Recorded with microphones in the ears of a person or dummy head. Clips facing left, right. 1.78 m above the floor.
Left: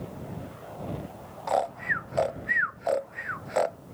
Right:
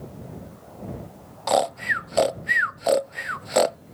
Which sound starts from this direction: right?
Snoring, at 1.5 s.